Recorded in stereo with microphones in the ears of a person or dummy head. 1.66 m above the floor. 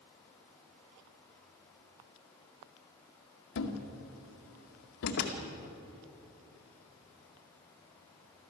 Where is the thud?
65° left (ahead or behind), 2 m.